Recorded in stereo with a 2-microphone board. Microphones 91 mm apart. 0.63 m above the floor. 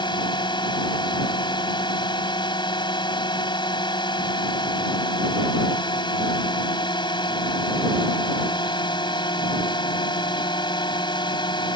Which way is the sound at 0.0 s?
55° left (ahead or behind).